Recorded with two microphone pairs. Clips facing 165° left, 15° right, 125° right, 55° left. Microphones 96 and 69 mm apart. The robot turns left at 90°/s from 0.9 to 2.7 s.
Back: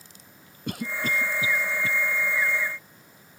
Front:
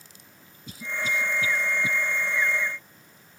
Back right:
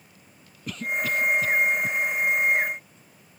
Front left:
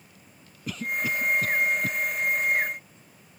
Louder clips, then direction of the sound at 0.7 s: Back 2 dB, back right 1 dB; 140° left.